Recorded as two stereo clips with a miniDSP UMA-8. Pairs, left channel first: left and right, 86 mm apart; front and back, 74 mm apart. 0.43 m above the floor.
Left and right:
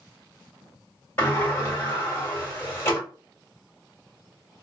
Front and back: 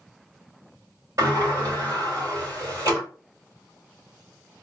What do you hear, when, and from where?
1.2 s a sliding door: 150° left, 1.9 m